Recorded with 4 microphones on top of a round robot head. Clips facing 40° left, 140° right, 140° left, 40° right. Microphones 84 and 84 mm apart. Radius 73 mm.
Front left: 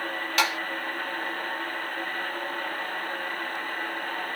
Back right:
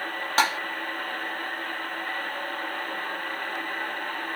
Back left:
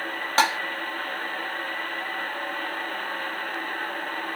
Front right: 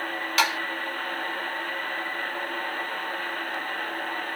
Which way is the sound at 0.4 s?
Straight behind.